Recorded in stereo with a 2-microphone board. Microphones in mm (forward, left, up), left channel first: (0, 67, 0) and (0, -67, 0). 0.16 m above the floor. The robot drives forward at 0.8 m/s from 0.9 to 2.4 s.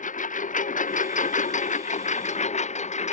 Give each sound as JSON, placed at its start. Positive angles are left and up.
{"t": 0.0, "sound": "a lawn mower", "side_deg": 75}